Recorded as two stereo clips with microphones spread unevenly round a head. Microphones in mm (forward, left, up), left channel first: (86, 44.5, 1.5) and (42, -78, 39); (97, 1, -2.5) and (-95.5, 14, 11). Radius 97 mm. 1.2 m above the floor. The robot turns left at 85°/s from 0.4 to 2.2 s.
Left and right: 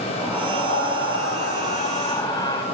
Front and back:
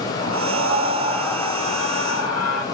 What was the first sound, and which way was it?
A scream, 160° left.